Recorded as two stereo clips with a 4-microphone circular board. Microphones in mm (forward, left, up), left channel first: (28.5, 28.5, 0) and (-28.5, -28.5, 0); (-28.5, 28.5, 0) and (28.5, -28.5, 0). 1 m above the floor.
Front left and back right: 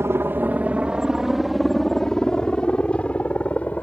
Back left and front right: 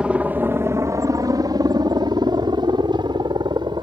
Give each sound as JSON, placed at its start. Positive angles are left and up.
{"t": 0.0, "sound": "a helicopter", "azimuth_deg": -110}